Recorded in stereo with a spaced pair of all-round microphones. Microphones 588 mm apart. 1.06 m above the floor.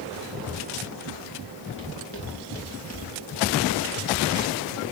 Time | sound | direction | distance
1.8 | footsteps | 20° left (ahead or behind) | 8 m